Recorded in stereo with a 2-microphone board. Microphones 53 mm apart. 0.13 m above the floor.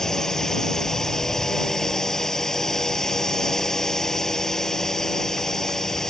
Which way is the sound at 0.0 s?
10° left (ahead or behind).